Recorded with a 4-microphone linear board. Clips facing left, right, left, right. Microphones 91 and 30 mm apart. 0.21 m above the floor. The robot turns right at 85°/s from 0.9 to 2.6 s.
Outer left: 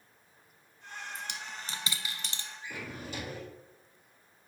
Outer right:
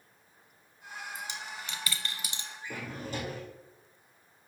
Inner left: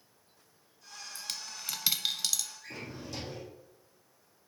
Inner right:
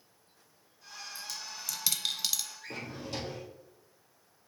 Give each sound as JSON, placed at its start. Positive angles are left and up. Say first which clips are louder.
{"t": 1.1, "sound": "a dropped coin", "louder": "outer right 1 dB, inner left 2 dB", "side_deg": 60, "distance_m": 1.0}
{"t": 2.6, "sound": "a drawer", "louder": "outer right 3 dB, inner right 2 dB", "side_deg": -40, "distance_m": 2.0}